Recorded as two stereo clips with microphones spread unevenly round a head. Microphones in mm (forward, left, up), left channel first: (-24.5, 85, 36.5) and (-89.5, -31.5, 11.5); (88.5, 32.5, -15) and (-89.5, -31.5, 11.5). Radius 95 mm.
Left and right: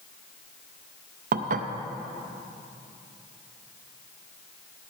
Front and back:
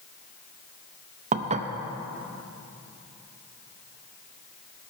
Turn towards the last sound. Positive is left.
turn(degrees=-100)